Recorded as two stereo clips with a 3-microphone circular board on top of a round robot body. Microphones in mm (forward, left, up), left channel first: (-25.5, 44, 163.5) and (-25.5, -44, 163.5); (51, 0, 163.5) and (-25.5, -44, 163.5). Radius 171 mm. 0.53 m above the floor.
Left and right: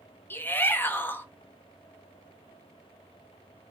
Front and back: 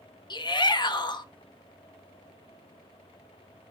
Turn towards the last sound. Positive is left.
turn(degrees=25)